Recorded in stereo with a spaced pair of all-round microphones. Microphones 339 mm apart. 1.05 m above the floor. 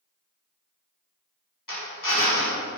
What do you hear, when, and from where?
1.7 s a drill: 70° left (ahead or behind), 2.5 m